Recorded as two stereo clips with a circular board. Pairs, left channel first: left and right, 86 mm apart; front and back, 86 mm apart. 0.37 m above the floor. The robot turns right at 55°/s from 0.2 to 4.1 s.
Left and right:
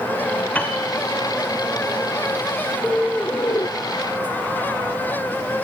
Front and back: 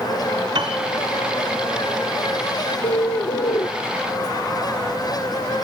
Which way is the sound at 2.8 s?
10° right.